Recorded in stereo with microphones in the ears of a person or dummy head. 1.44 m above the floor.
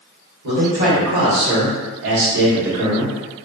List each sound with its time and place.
0.4 s a man speaking: 60° right (ahead or behind), 1.6 m; by 3.1 s 35° right (ahead or behind), 1.3 m